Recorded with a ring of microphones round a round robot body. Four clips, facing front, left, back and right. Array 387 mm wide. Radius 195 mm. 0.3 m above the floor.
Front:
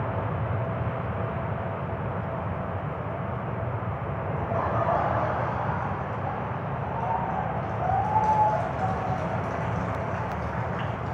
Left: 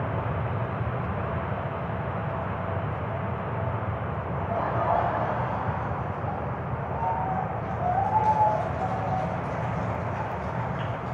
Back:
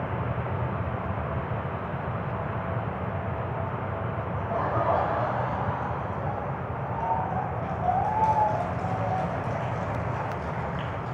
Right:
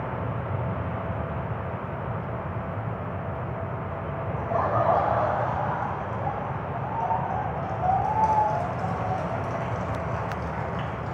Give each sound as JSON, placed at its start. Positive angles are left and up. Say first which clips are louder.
{"t": 4.4, "sound": "laughter", "louder": "right 4 dB, even", "azimuth_deg": -90, "distance_m": 1.6}